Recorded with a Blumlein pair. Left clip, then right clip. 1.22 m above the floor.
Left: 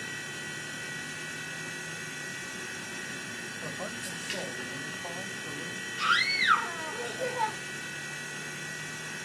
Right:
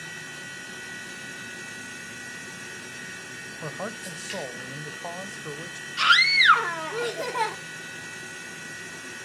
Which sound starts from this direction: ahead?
A machine running, at 0.0 s.